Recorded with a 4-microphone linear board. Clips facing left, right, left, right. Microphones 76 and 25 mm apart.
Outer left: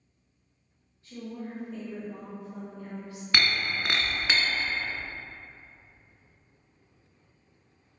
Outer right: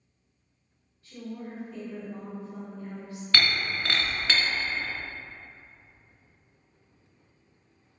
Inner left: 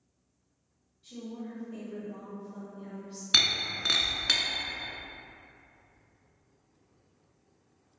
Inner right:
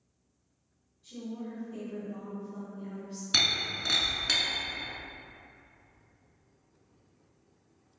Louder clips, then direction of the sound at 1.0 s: Even, inner right 1 dB; 30° left (ahead or behind).